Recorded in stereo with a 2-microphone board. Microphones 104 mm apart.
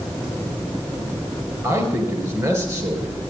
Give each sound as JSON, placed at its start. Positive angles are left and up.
{"t": 1.6, "sound": "a man speaking", "side_deg": -30, "distance_m": 3.5}